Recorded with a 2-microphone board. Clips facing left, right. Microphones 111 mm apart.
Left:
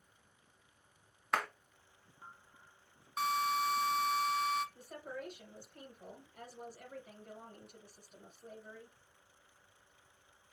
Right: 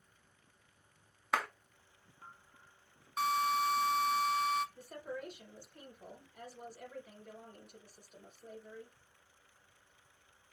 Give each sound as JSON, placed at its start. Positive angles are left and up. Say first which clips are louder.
{"t": 1.3, "sound": "a clap", "louder": "right 1 dB", "side_deg": -5, "distance_m": 1.0}
{"t": 3.2, "sound": "a drill", "louder": "right 2 dB", "side_deg": 0, "distance_m": 0.9}
{"t": 4.8, "sound": "a woman speaking", "louder": "right 2 dB", "side_deg": 35, "distance_m": 1.9}